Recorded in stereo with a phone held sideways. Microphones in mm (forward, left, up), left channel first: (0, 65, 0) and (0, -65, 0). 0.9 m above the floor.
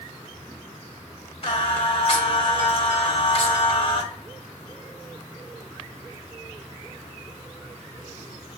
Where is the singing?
45° left (ahead or behind), 0.8 m.